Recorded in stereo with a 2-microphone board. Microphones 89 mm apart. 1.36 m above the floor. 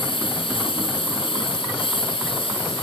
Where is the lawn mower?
85° left; by 2.8 s 90° left.